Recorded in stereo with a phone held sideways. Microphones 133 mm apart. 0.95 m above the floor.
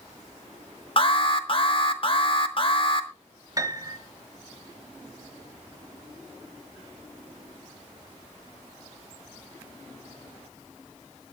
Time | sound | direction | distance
1.0 | an alarm | 40° left (ahead or behind) | 1.3 m
3.6 | a piano | 30° right (ahead or behind) | 1.5 m